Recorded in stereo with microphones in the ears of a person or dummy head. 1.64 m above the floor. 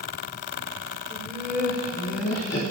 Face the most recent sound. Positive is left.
turn(degrees=60)  # may be behind; listen again after turning